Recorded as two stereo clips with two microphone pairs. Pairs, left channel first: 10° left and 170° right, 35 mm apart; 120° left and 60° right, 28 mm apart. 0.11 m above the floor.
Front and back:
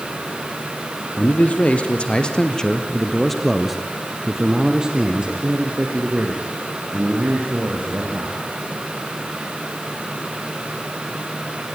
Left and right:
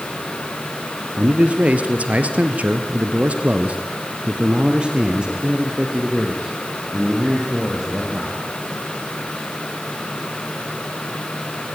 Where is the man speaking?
25° right, 2.5 m; by 8.4 s 135° right, 5 m.